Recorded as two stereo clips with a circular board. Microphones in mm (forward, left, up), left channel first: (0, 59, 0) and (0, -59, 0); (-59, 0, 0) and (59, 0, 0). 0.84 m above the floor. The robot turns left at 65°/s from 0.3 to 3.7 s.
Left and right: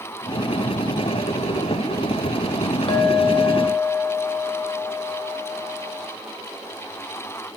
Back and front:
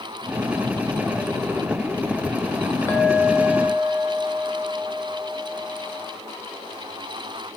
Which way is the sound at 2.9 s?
110° left.